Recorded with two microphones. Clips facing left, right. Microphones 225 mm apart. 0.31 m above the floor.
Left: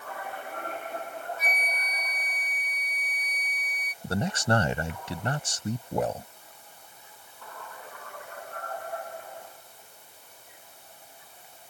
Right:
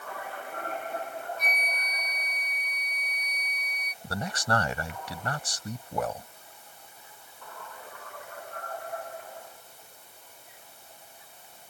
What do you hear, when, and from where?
1.4 s a flute: 5° left (ahead or behind)
4.0 s a man speaking: 25° left (ahead or behind)